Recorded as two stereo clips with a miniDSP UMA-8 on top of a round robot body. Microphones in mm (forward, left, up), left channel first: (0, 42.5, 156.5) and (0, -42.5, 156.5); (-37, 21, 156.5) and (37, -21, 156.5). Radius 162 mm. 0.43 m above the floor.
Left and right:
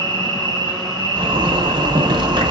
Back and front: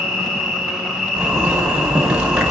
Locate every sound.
0.0 s an insect: 125° right, 7.5 m
1.2 s a zipper: 110° right, 2.5 m